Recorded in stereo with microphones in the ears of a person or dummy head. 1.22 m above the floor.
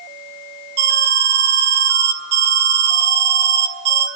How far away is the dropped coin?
I don't hear a dropped coin.